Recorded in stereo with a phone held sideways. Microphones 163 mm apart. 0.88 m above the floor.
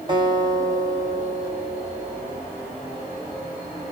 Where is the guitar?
30° right (ahead or behind), 2 m.